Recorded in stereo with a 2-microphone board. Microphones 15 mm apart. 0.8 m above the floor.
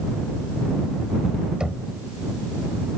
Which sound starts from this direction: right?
Knocking, at 1.6 s.